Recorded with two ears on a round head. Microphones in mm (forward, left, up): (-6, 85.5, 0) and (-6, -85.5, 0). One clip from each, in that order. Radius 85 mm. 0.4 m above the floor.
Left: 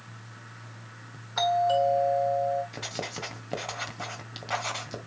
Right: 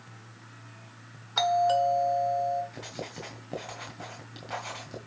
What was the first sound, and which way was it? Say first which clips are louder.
A doorbell: even; 30° right (ahead or behind).